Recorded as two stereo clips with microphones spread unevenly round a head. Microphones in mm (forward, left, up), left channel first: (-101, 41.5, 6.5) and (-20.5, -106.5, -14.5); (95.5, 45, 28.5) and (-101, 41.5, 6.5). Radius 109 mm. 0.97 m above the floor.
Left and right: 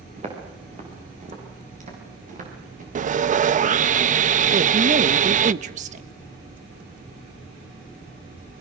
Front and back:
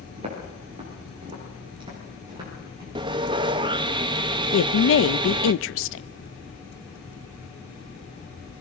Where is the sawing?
110° right, 0.6 m.